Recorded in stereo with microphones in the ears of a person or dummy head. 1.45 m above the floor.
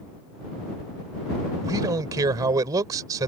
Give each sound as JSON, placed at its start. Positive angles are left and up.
{"t": 1.6, "sound": "a man speaking", "side_deg": -25}